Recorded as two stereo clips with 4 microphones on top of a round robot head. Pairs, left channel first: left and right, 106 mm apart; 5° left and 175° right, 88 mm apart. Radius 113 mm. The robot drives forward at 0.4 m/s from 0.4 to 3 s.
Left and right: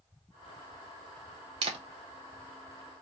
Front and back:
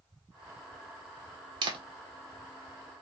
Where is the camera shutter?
135° right, 0.6 m.